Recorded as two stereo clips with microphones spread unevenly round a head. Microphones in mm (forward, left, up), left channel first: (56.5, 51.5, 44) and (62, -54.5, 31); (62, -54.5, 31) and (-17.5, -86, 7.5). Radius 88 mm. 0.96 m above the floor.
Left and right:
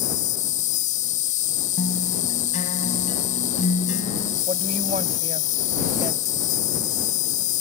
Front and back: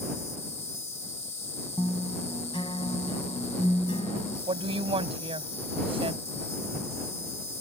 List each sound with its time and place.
0.0 s an insect: 100° left
1.8 s a guitar: 85° left
4.5 s a woman speaking: 140° right